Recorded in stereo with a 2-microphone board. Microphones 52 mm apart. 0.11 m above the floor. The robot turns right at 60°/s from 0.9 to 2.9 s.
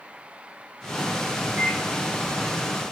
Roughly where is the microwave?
Right.